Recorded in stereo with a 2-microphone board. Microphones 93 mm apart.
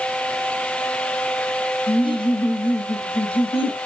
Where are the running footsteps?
I don't hear running footsteps.